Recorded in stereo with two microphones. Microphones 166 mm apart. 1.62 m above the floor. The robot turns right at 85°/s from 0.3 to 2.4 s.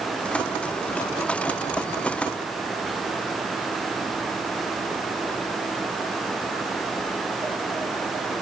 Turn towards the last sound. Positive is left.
No sound to turn to.